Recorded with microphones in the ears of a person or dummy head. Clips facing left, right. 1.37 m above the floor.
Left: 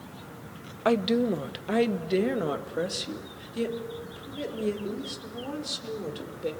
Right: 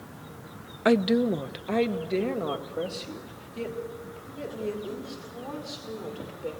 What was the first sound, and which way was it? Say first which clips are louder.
A woman speaking: right 2 dB; 15° right (ahead or behind).